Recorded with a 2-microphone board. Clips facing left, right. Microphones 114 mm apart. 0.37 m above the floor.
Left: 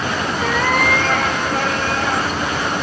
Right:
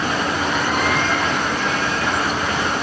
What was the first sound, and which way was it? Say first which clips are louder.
A cat meowing: left 5 dB; 80° left.